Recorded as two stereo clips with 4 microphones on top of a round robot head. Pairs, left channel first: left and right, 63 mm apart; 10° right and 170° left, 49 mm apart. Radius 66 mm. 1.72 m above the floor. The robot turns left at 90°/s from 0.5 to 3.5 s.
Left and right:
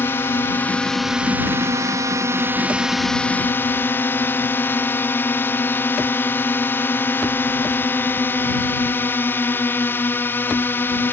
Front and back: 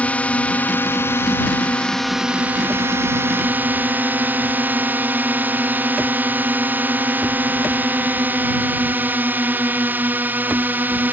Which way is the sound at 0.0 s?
45° left.